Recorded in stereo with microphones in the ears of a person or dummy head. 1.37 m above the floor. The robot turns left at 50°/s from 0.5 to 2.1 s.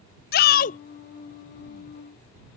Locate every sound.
0.3 s a shout: 40° left (ahead or behind); by 0.8 s 30° left (ahead or behind)